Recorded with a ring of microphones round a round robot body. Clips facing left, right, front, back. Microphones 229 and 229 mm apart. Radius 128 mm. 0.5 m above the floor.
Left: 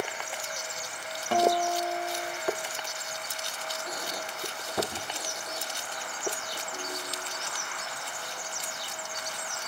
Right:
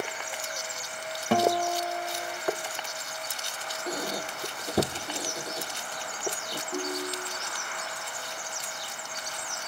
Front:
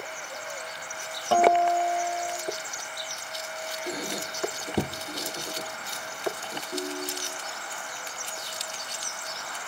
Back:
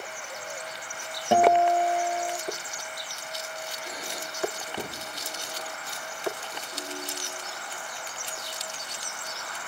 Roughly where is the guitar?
Right.